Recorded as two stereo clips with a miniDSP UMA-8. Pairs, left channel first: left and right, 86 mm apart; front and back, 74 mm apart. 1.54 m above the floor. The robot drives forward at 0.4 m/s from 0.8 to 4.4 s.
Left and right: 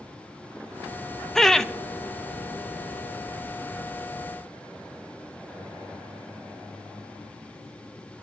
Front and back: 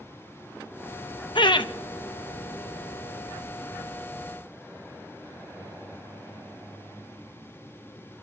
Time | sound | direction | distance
1.4 | laughter | 5° left | 0.8 m